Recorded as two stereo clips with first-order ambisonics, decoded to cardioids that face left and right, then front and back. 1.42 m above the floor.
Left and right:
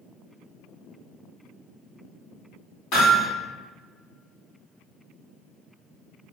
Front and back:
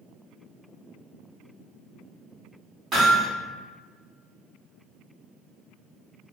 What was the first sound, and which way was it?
Hammering, 120° left.